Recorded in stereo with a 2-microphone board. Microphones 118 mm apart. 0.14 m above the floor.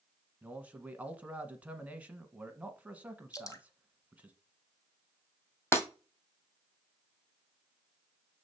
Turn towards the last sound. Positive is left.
turn(degrees=25)  # may be behind; listen again after turning